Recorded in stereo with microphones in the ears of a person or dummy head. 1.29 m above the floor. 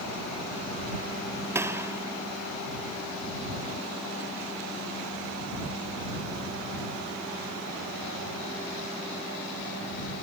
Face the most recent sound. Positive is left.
turn(degrees=-20)  # may be behind; listen again after turning